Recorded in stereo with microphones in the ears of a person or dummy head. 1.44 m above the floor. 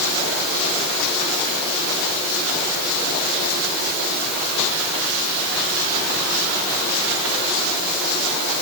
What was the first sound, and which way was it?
Only background noise.